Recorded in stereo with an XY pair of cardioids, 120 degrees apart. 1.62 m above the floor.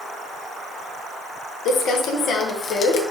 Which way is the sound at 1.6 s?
70° left.